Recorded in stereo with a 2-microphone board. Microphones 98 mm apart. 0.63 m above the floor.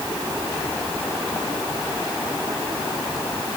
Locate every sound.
Only background noise.